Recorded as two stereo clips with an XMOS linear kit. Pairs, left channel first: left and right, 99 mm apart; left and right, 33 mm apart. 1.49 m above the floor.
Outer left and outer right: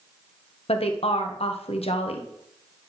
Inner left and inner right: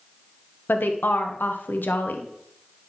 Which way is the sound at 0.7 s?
85° left.